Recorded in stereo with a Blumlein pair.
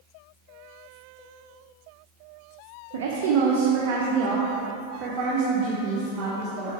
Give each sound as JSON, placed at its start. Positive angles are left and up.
{"t": 2.9, "sound": "a woman speaking", "azimuth_deg": -55, "distance_m": 0.9}